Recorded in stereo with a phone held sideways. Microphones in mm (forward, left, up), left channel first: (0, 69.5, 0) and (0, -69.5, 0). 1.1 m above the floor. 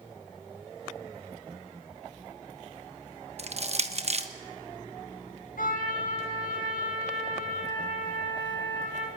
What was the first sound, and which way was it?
Crushing, 50° right (ahead or behind).